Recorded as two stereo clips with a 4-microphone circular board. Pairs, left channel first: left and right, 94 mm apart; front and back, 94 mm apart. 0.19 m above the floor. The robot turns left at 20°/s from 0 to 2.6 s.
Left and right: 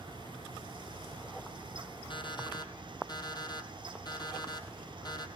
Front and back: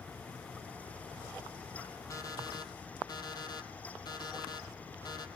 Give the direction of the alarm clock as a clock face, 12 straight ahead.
10 o'clock.